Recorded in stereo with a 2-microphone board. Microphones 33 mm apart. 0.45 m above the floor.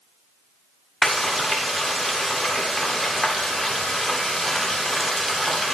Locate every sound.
1.0 s frying: centre (ahead or behind), 1.0 m